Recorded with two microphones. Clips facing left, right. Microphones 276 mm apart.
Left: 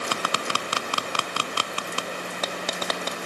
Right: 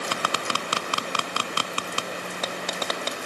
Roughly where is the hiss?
No hiss in this recording.